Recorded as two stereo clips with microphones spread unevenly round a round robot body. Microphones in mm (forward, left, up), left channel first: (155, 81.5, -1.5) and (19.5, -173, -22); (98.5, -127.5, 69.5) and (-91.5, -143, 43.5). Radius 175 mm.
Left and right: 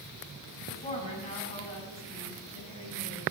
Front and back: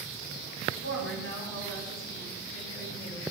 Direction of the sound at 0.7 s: 5° right.